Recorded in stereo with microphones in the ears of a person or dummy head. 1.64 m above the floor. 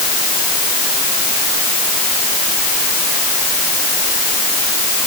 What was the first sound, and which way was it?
Only background noise.